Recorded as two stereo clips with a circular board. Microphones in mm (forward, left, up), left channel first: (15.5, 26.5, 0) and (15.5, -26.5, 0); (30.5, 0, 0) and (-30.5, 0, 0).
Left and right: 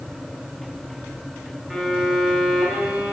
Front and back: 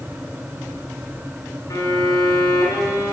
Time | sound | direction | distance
1.7 | a violin | 15° right | 2.5 m